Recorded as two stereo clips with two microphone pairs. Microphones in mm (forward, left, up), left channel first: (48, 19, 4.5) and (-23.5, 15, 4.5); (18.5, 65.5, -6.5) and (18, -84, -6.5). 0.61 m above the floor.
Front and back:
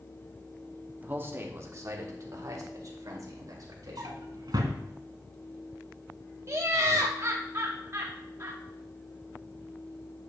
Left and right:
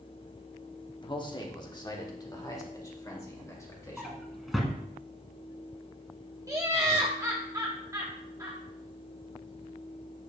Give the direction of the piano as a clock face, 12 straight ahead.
No piano in this recording.